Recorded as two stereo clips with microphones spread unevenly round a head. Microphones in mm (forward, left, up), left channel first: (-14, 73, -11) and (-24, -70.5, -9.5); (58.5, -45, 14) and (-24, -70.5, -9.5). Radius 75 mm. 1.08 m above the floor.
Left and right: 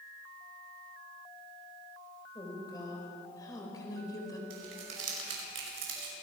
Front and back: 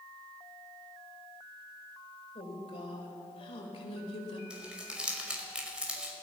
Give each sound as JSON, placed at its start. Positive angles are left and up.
{"t": 2.4, "sound": "a woman speaking", "azimuth_deg": 20, "distance_m": 4.5}
{"t": 4.5, "sound": "crumpling", "azimuth_deg": -85, "distance_m": 5.0}